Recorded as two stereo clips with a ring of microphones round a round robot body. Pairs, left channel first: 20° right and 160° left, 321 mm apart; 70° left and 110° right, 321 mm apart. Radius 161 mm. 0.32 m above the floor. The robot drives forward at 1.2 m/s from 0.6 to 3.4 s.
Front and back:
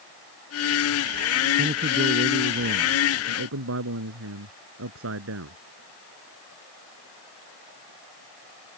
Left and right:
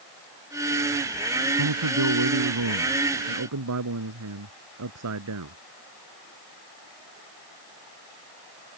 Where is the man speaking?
135° right; by 5.6 s 155° right.